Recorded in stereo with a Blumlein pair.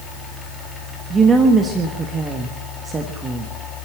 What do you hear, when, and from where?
0.0 s a fan: 10° left, 4 m
1.1 s a woman speaking: 20° right, 1.6 m